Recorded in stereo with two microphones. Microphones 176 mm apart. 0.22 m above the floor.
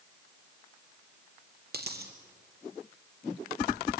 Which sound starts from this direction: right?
A dropped coin, at 1.7 s.